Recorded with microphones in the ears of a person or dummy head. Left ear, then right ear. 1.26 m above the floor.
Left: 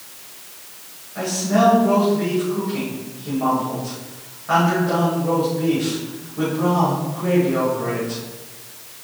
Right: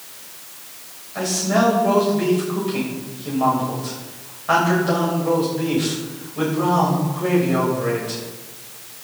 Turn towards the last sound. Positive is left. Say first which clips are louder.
# even
turn(degrees=-35)  # may be behind; listen again after turning